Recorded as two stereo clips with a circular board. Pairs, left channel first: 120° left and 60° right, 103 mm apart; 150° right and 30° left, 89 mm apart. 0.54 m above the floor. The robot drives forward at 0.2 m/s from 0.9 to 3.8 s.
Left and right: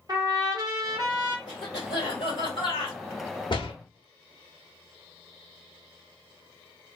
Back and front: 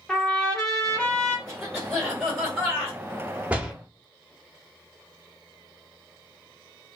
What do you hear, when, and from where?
0.1 s a trumpet: 75° right, 0.8 m; by 1.4 s 85° right, 0.8 m
1.5 s a cough: 120° left, 1.6 m; by 3.0 s 130° left, 1.7 m
3.5 s a door slam: 100° left, 0.6 m; by 3.7 s 105° left, 0.6 m